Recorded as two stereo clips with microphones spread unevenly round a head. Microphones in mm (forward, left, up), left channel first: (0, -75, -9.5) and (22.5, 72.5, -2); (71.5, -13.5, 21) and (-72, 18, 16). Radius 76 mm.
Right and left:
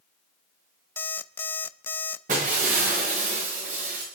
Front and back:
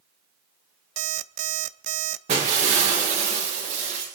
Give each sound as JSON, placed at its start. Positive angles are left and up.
{"t": 1.0, "sound": "an alarm clock", "azimuth_deg": -175, "distance_m": 0.5}
{"t": 2.3, "sound": "breaking glass", "azimuth_deg": 120, "distance_m": 6.5}